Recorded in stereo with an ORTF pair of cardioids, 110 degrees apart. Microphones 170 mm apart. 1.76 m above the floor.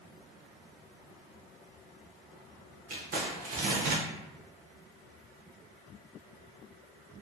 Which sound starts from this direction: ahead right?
Crumpling, at 2.9 s.